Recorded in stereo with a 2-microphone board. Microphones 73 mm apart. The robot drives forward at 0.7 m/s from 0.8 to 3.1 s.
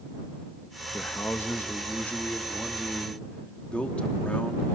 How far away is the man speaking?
About 1.9 m.